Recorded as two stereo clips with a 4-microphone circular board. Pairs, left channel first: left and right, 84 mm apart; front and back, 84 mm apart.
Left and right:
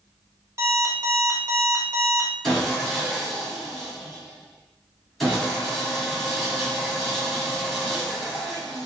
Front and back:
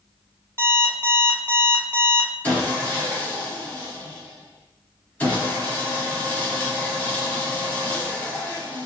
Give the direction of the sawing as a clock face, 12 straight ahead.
12 o'clock.